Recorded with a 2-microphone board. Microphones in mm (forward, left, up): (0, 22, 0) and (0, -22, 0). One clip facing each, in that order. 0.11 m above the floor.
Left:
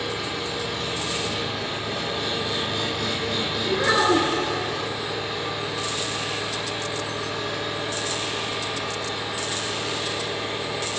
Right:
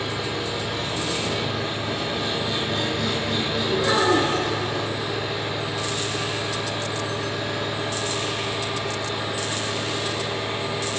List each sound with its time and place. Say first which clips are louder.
0.0 s an engine running: right 1 dB; 5° right (ahead or behind), 3.5 m
3.7 s a child speaking: left 1 dB; 30° left (ahead or behind), 1.2 m